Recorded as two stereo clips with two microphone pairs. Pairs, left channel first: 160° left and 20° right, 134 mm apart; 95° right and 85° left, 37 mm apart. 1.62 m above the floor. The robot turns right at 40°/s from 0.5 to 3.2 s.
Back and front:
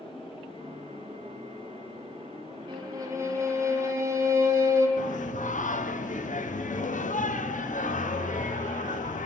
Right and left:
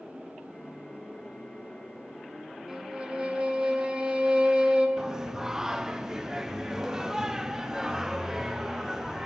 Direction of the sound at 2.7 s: 15° left.